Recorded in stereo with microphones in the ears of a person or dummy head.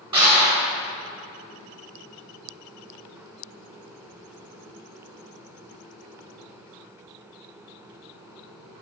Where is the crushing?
35° right (ahead or behind), 3 m.